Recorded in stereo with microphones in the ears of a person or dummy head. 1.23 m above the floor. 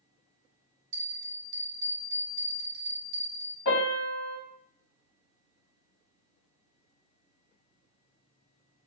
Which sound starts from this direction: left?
A piano, at 3.6 s.